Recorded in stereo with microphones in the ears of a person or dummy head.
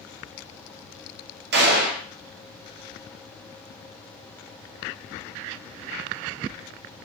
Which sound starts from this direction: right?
A gunshot, at 1.5 s.